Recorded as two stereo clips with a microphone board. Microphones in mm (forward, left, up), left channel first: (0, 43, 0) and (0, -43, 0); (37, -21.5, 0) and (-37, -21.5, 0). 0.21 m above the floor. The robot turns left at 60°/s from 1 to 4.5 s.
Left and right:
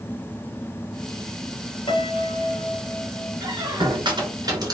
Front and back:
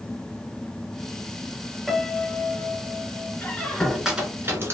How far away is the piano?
About 0.7 m.